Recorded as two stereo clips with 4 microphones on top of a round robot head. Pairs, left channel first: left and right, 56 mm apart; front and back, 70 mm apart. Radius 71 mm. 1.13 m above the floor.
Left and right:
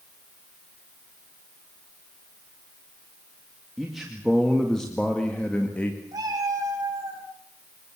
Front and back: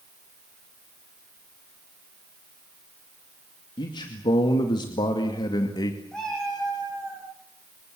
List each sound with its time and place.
3.8 s a man speaking: 5° right, 2.5 m; by 6.0 s 25° left, 2 m
6.1 s a cat meowing: 85° right, 6.5 m